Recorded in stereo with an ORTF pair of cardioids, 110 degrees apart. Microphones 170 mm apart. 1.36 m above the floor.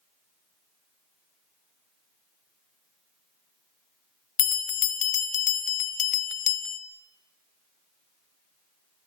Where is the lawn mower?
I don't hear a lawn mower.